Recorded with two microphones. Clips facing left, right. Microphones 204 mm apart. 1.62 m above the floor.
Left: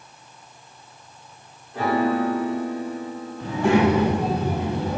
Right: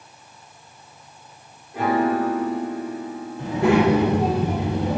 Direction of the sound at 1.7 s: 15° right (ahead or behind).